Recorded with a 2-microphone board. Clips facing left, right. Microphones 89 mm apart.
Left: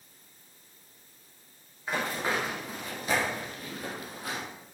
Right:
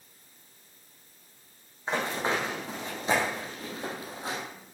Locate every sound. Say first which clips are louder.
1.9 s running footsteps: right 2 dB; 25° right (ahead or behind), 4 m